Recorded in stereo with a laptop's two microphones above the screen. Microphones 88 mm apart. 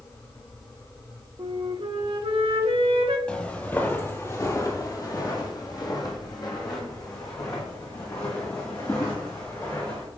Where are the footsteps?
10° left (ahead or behind), 1.1 m; by 10.1 s 40° left (ahead or behind), 3 m.